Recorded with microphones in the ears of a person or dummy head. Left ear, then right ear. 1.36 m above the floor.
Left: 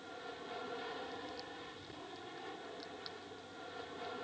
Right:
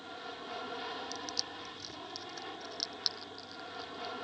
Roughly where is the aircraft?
Right.